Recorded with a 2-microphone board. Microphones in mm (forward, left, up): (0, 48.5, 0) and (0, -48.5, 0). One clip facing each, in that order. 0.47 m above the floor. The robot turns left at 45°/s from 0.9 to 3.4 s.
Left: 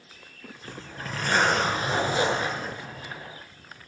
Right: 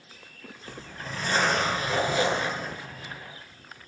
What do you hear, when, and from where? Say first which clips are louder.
0.6 s a zipper: left 2 dB; 85° left, 4.5 m; by 3.2 s 15° right, 4.5 m